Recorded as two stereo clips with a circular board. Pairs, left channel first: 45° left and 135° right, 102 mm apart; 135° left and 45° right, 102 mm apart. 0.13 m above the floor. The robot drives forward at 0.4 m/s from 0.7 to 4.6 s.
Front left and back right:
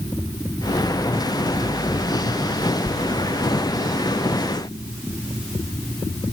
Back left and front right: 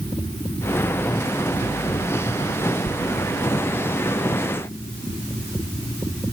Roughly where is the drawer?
No drawer in this recording.